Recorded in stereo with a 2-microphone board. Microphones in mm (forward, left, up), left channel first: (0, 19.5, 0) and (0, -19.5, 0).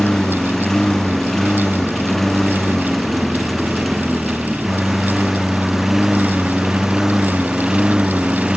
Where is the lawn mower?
10° left (ahead or behind); by 8.6 s 20° right (ahead or behind).